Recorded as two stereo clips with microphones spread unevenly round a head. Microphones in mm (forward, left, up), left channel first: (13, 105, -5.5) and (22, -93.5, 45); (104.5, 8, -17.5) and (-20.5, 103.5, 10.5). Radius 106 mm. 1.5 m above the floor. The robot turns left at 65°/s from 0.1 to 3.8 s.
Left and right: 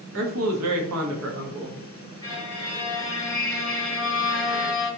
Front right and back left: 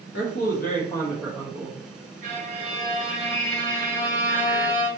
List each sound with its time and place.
0.1 s a man speaking: 55° right, 1.0 m; by 1.8 s 160° right, 1.0 m
2.2 s a violin: 175° left, 2 m; by 4.9 s 75° left, 2 m